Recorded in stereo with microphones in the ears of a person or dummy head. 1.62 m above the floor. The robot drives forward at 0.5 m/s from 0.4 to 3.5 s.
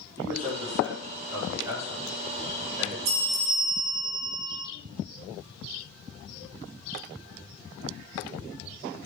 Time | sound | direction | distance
0.2 | a man speaking | 25° right (ahead or behind) | 4 m
3.0 | a bell | 35° right (ahead or behind) | 1.9 m